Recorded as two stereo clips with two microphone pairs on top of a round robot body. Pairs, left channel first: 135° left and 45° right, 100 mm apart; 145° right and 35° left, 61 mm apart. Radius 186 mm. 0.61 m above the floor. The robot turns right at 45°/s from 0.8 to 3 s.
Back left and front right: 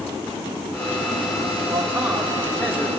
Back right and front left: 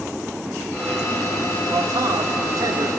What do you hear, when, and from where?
1.7 s a man speaking: 10° left, 2.5 m; by 2.9 s 65° left, 2.5 m